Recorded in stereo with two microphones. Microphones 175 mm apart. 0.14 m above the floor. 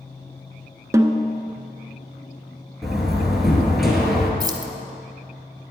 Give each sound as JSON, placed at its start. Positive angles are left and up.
{"t": 0.9, "sound": "a snare drum", "side_deg": -15, "distance_m": 0.7}
{"t": 2.8, "sound": "a door slam", "side_deg": 0, "distance_m": 2.0}
{"t": 4.4, "sound": "keys jangling", "side_deg": -25, "distance_m": 0.9}